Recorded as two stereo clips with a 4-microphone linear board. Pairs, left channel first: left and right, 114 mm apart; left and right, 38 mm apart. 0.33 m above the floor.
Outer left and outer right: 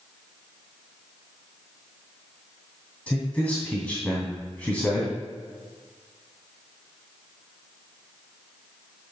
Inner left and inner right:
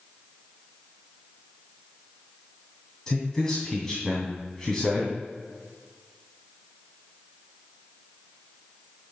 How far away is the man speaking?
About 2.5 m.